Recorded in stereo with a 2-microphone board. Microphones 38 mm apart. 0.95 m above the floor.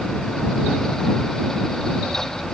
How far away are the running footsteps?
I don't hear running footsteps.